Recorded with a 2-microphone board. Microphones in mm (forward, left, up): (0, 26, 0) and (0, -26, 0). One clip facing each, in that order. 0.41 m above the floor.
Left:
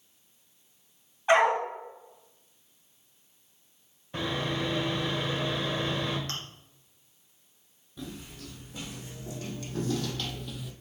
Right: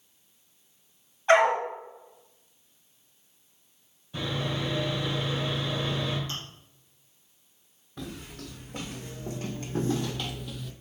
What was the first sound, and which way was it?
A dog barking, 10° left (ahead or behind).